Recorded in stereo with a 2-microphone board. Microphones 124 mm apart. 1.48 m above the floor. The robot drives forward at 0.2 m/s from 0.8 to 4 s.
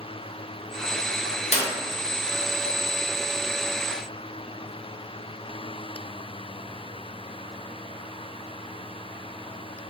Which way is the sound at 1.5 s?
60° left (ahead or behind).